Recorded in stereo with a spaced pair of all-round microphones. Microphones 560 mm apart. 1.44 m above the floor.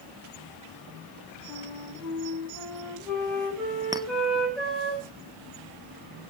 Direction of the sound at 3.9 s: 5° right (ahead or behind).